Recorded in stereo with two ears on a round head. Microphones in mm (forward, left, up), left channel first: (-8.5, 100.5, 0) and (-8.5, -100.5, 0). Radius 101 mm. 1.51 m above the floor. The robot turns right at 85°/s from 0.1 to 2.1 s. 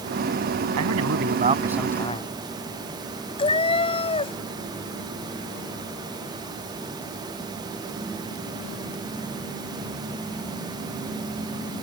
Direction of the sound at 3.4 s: 25° left (ahead or behind).